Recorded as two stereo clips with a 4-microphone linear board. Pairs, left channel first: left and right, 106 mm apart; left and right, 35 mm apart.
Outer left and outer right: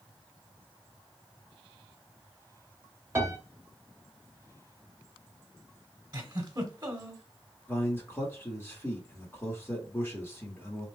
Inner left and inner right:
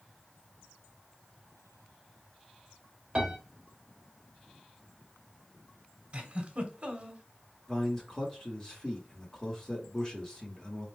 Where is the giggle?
40° right (ahead or behind), 1.1 m.